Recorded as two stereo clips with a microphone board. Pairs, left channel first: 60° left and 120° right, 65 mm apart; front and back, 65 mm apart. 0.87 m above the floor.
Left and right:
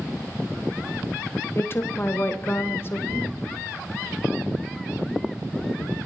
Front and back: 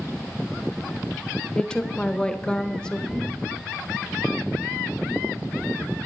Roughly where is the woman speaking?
Left.